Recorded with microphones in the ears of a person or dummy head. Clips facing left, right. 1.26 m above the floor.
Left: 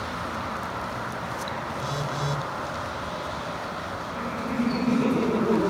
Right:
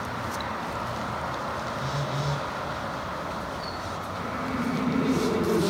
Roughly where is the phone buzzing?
Left.